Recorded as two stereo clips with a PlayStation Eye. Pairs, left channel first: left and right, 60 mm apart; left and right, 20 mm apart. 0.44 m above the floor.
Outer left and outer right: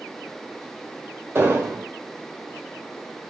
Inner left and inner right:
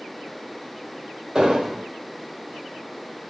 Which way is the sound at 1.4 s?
35° right (ahead or behind).